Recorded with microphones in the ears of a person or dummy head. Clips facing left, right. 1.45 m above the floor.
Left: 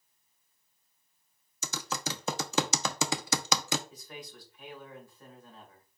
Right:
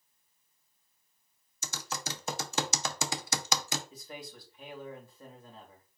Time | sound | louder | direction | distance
1.6 | typing on a keyboard | left 4 dB | 55° left (ahead or behind) | 0.6 m
3.9 | a man speaking | right 1 dB | 35° right (ahead or behind) | 2 m